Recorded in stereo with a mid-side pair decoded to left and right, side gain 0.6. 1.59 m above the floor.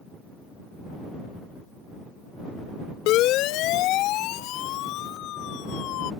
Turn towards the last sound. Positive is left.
turn(degrees=70)